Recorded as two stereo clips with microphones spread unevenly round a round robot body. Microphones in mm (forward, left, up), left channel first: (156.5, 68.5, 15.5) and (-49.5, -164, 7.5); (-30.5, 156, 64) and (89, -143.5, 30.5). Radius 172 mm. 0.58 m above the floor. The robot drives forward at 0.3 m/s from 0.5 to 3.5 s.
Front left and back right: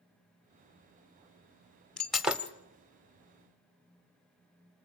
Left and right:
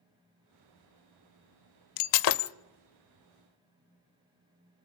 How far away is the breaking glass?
About 0.8 m.